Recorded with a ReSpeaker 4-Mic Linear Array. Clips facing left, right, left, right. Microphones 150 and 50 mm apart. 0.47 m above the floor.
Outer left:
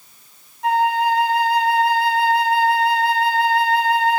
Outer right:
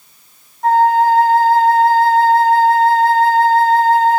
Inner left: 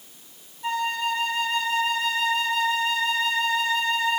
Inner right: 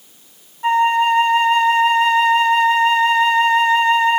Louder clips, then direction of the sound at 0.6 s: Outer right 6 dB, inner right 12 dB; 45° right (ahead or behind).